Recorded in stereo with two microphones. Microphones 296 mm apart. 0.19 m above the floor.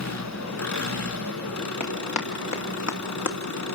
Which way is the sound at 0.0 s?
60° left (ahead or behind).